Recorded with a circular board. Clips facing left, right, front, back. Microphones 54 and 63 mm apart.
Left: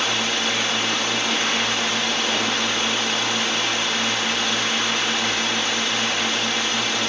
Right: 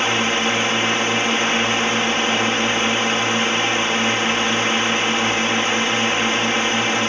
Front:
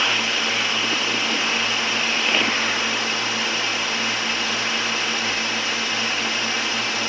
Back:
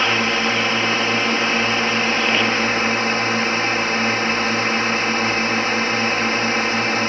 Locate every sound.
0.0 s a drone: 140° right